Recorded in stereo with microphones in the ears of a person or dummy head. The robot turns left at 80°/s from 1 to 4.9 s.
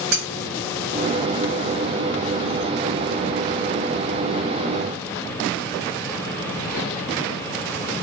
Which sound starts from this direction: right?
Cutlery clinking, at 0.1 s.